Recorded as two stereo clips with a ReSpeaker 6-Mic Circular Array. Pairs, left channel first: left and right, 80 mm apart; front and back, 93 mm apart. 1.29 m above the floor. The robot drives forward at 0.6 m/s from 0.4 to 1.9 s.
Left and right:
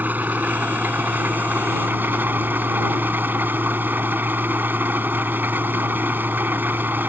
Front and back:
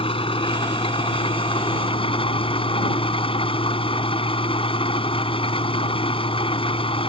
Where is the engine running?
20° right; by 7.1 s 25° right.